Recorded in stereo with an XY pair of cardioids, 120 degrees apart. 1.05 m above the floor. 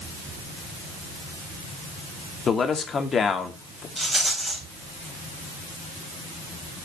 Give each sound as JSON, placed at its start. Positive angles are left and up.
{"t": 2.5, "sound": "a man speaking", "azimuth_deg": 40, "distance_m": 1.9}
{"t": 4.0, "sound": "a rattle", "azimuth_deg": -5, "distance_m": 3.0}